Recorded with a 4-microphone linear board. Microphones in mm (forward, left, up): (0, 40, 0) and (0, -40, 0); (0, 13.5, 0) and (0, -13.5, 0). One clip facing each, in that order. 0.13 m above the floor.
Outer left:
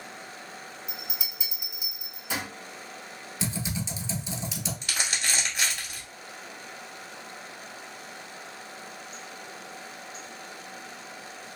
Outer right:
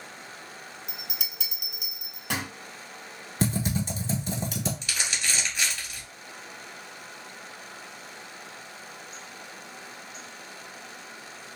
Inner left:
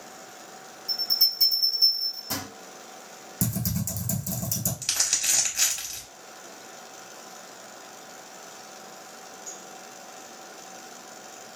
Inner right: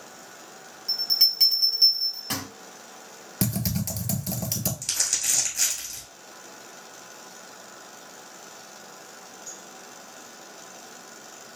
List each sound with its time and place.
0.9 s a bell: 60° right (ahead or behind), 1.5 m
3.4 s typing on a keyboard: 50° right (ahead or behind), 0.9 m
4.8 s crumpling: 35° left (ahead or behind), 1.6 m